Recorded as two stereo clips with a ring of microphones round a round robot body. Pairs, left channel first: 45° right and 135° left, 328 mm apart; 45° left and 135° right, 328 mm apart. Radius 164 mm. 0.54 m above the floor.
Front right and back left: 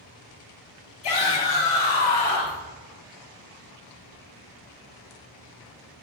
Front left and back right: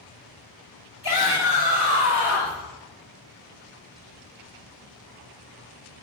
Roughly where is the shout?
Ahead right.